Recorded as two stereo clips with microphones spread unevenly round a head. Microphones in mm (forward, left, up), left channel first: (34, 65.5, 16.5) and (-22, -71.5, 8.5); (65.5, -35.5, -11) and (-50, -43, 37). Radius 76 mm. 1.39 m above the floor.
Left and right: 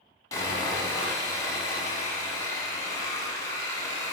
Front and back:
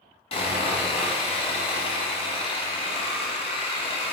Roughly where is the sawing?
Ahead.